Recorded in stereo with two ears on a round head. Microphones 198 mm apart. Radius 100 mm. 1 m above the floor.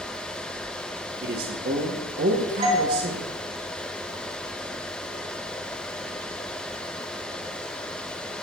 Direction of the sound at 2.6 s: 30° right (ahead or behind).